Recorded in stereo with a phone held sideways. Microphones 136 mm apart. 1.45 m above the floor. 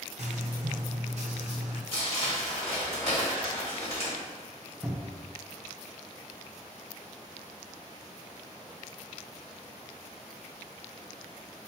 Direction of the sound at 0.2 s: 55° right (ahead or behind).